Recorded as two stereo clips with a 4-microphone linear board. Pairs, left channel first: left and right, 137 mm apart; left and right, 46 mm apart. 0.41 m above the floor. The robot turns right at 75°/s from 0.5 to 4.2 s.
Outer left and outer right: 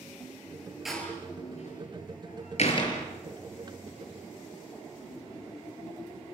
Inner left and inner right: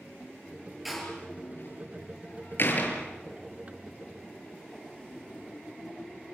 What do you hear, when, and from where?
0.8 s a door slam: centre (ahead or behind), 6 m; by 3.0 s 15° left (ahead or behind), 6 m